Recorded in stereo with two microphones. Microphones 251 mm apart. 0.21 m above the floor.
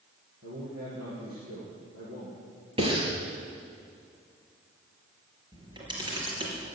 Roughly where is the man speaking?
Right.